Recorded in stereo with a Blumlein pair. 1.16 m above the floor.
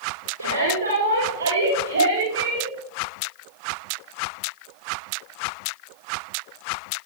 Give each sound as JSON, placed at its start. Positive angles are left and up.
{"t": 0.4, "sound": "a shout", "azimuth_deg": -65, "distance_m": 5.5}